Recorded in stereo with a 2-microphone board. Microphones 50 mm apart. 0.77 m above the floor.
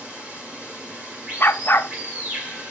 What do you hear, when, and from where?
0.0 s running water: 25° right (ahead or behind), 2.5 m
1.4 s a dog barking: 45° left (ahead or behind), 0.6 m